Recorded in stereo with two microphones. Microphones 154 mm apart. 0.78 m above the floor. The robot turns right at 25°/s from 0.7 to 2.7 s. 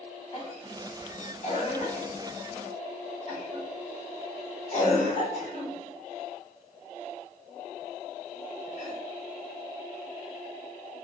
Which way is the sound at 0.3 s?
40° left (ahead or behind).